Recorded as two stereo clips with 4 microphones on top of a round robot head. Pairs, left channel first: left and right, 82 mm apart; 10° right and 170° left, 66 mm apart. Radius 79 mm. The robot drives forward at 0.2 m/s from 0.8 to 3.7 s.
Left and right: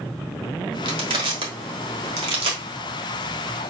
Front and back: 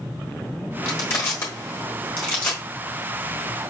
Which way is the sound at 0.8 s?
65° right.